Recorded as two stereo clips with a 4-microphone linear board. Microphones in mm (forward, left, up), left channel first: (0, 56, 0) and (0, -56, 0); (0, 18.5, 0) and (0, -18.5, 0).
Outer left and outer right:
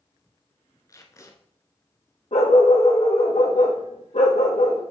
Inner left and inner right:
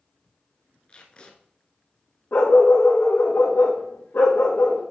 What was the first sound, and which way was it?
Tape being pulled, 30° left (ahead or behind).